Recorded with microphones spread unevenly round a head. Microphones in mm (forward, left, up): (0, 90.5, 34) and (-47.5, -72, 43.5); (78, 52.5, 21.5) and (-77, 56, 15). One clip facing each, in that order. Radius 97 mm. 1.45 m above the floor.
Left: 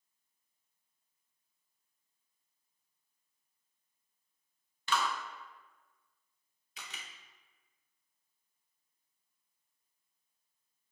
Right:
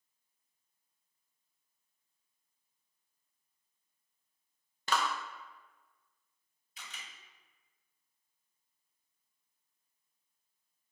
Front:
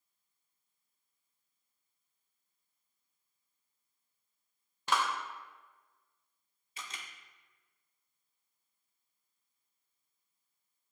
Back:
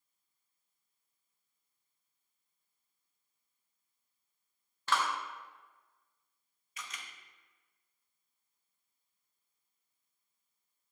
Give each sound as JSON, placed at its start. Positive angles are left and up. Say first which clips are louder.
{"t": 4.9, "sound": "a clap", "louder": "right 1 dB, front 1 dB", "azimuth_deg": -70, "distance_m": 0.5}
{"t": 6.8, "sound": "a camera shutter", "louder": "left 1 dB, even", "azimuth_deg": 45, "distance_m": 0.8}